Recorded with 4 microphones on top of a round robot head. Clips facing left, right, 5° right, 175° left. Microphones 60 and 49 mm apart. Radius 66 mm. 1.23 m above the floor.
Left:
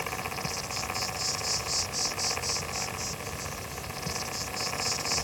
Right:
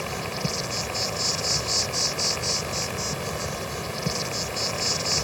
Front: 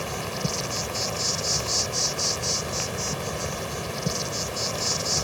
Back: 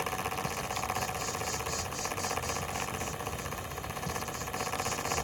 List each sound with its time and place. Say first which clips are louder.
0.0 s an insect: right 4 dB, front 3 dB; 40° right